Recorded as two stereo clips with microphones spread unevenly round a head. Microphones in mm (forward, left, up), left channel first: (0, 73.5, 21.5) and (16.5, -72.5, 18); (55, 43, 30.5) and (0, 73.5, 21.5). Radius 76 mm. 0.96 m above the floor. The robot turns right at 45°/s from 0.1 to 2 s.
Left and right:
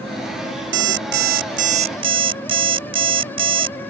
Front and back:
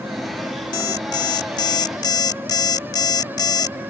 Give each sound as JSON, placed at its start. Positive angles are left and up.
{"t": 0.7, "sound": "an alarm clock", "azimuth_deg": -85}